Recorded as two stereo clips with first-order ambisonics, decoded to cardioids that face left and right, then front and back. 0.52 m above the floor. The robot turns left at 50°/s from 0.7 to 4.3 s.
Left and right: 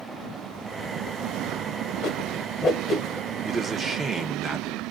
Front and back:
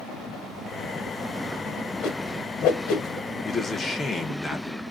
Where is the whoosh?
50° left, 1.2 m; by 3.4 s 15° right, 1.2 m.